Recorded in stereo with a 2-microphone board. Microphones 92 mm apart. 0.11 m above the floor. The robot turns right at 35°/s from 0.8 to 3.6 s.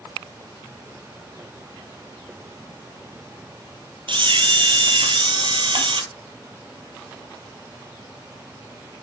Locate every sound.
4.1 s a camera shutter: 65° right (ahead or behind), 1.0 m